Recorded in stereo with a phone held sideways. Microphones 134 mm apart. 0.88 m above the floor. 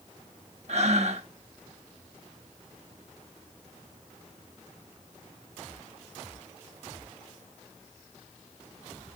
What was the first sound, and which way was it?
Breathing, 55° right (ahead or behind).